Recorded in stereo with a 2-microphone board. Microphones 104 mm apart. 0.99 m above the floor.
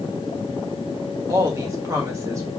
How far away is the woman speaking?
About 1.8 m.